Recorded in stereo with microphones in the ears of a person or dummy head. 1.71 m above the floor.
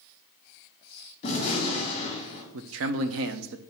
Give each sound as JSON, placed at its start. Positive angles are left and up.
{"t": 1.2, "sound": "a gunshot", "side_deg": 40, "distance_m": 2.5}
{"t": 2.5, "sound": "a man speaking", "side_deg": -70, "distance_m": 0.6}